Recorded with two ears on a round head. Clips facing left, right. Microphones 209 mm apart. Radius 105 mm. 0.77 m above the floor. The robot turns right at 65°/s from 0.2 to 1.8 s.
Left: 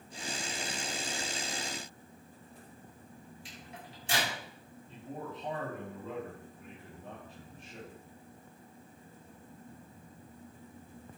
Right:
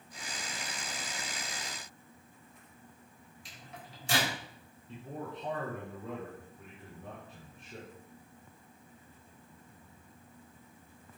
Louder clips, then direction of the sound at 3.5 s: Right 1 dB; 35° right (ahead or behind).